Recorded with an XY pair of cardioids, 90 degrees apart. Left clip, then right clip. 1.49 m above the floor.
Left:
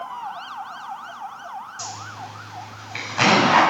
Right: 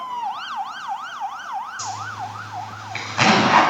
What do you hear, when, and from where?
1.8 s a zipper: 15° right, 6 m